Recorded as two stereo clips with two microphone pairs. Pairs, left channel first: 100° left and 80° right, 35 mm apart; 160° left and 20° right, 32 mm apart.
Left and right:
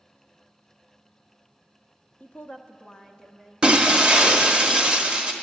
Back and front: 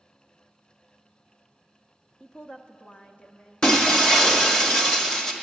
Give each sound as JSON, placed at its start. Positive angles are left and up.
{"t": 2.2, "sound": "a woman speaking", "azimuth_deg": 85, "distance_m": 0.6}
{"t": 3.6, "sound": "breaking glass", "azimuth_deg": -145, "distance_m": 1.0}